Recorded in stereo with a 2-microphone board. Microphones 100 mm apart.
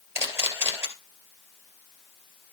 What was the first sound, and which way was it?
A camera shutter, 25° right (ahead or behind).